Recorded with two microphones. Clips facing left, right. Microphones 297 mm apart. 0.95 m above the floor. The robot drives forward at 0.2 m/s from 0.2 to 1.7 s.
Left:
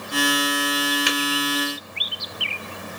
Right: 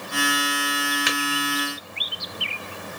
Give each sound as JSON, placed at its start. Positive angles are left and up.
{"t": 1.1, "sound": "tapping", "side_deg": 40, "distance_m": 1.1}